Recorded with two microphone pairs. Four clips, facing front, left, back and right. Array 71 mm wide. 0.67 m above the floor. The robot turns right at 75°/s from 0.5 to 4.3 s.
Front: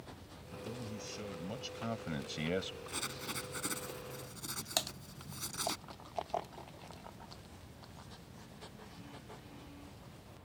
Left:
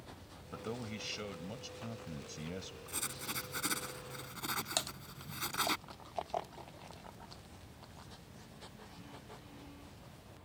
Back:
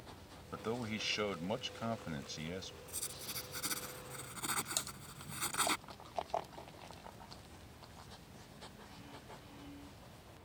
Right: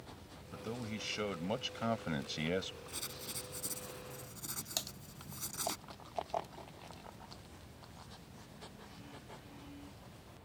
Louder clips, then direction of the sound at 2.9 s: Left 4 dB, front 8 dB; 20° left.